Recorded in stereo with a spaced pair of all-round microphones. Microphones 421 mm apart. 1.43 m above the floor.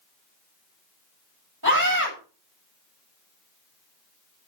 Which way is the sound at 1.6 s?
50° right (ahead or behind).